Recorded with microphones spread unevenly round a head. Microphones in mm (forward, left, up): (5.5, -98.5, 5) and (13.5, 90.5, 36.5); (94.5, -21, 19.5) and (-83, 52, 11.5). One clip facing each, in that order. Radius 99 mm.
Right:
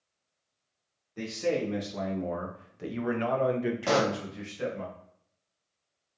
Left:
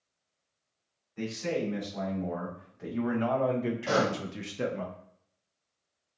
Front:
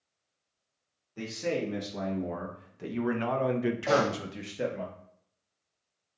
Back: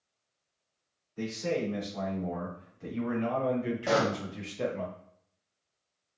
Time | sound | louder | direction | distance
1.2 | a man speaking | right 2 dB, even | 55° right | 1.8 m
3.9 | a pop | right 2 dB, even | 125° right | 0.5 m